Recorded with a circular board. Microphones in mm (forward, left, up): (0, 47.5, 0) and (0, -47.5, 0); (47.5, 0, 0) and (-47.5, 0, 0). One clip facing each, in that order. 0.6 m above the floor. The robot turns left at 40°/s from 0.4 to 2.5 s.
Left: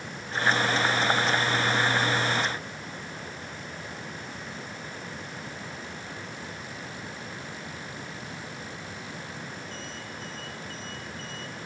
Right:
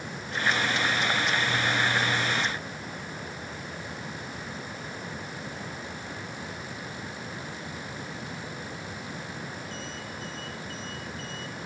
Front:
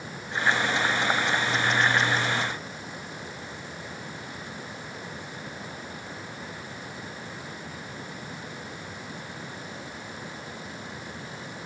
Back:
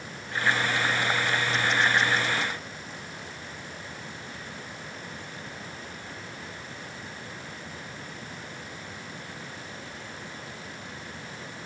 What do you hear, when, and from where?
Only background noise.